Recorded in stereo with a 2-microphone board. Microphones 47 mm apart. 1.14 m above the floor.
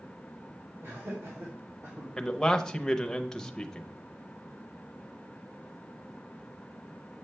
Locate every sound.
0.8 s laughter: 70° right (ahead or behind), 3.5 m
2.2 s a man speaking: 10° left (ahead or behind), 0.7 m